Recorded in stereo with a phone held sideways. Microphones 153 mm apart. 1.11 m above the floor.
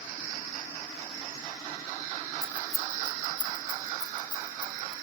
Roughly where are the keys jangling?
Centre.